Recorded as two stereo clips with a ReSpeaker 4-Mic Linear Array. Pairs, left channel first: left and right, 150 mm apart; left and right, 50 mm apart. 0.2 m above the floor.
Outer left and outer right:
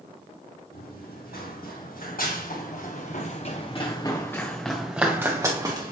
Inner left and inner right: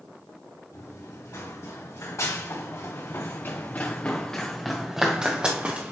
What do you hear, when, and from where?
0.7 s running footsteps: 85° left, 2.5 m; by 5.9 s 30° right (ahead or behind), 1.5 m